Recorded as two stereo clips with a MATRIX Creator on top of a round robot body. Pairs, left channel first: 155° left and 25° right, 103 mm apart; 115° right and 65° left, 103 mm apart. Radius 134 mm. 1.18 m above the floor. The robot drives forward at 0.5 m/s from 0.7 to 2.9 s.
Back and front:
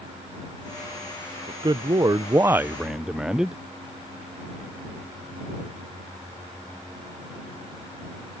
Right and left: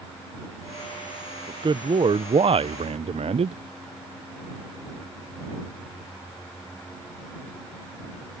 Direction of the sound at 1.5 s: 25° left.